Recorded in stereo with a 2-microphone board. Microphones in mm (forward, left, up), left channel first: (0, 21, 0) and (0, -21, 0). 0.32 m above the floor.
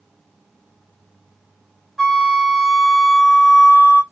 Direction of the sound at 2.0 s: 5° left (ahead or behind).